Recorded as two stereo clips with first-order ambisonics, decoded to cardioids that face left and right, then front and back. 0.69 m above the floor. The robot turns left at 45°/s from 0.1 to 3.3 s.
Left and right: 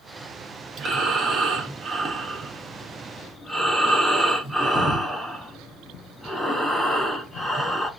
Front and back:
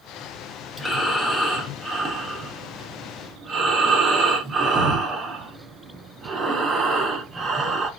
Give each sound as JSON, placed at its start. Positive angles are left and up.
{"t": 0.8, "sound": "breathing", "azimuth_deg": -80, "distance_m": 0.7}